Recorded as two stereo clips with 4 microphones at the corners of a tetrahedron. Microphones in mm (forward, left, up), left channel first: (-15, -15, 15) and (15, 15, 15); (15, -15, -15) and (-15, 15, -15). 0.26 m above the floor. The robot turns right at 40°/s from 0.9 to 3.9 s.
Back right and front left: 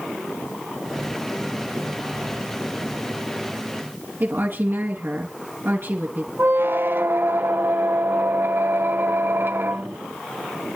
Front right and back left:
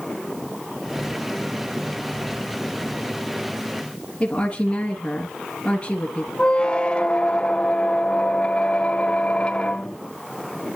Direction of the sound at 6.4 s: 20° left.